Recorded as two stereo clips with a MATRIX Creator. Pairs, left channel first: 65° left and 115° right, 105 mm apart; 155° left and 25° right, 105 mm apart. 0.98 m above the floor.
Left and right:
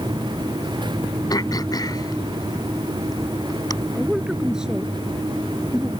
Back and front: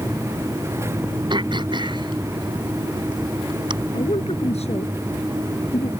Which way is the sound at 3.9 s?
165° left.